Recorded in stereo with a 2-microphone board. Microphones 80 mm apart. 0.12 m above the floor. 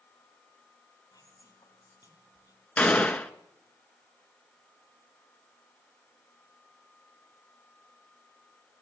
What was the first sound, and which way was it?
Whispering, 55° left (ahead or behind).